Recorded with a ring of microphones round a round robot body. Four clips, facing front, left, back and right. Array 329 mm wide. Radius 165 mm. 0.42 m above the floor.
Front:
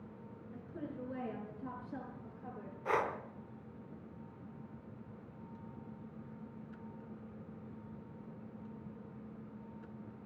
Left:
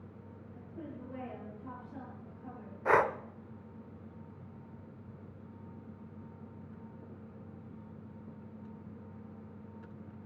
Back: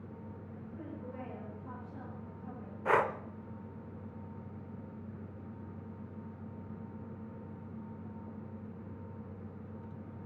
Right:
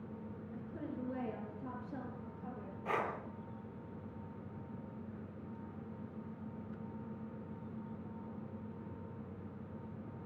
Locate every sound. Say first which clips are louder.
0.5 s a woman speaking: right 1 dB, front 2 dB; 50° right, 6.5 m; by 2.8 s 30° right, 8 m
2.9 s breathing: left 10 dB, back 5 dB; 120° left, 0.6 m